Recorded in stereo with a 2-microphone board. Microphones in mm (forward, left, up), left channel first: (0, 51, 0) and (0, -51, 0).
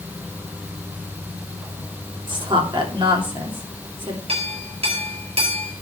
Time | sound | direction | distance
2.3 | a woman speaking | 55° right (ahead or behind) | 3.5 m
4.3 | a clink | 70° right (ahead or behind) | 4.5 m